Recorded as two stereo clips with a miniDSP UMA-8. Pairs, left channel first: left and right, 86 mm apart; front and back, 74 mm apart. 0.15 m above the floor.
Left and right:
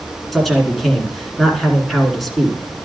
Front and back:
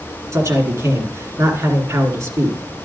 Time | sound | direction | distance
0.3 | a man speaking | 175° left | 1.7 m